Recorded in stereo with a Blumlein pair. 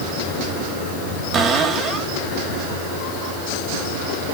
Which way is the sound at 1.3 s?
25° right.